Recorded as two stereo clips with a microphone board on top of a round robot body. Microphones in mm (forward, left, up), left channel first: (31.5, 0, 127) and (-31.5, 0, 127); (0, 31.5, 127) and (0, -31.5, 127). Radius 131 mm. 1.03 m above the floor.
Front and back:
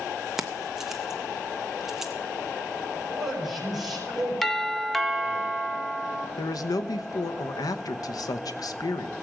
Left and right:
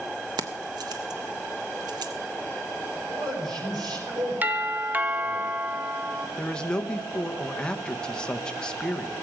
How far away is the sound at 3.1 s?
About 5 m.